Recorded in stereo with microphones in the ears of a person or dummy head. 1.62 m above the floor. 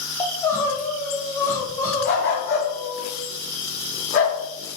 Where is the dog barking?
65° left (ahead or behind), 4 m.